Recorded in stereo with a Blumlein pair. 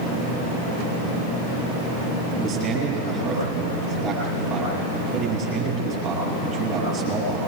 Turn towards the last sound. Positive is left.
turn(degrees=-30)